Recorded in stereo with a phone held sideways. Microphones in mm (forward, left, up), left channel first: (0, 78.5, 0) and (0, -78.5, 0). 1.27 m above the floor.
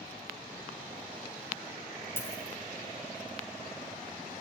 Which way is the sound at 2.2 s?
15° left (ahead or behind).